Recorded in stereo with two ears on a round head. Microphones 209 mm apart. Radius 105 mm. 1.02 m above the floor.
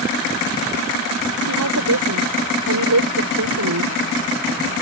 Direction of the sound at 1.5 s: 85° right.